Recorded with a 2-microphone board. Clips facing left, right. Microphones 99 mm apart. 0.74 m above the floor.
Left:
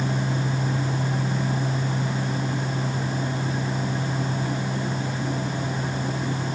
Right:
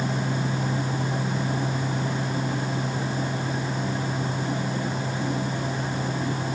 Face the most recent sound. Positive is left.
No sound to turn to.